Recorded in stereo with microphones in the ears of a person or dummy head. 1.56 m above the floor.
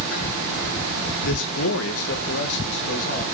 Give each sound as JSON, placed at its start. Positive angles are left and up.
{"t": 1.2, "sound": "a man speaking", "side_deg": 65, "distance_m": 1.4}